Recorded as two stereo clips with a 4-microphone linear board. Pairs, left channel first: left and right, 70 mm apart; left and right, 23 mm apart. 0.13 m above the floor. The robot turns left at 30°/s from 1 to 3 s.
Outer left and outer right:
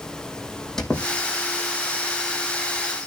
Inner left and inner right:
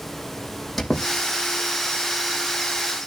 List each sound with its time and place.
0.8 s a squeak: 5° left (ahead or behind), 4 m; by 2.2 s 45° left (ahead or behind), 4 m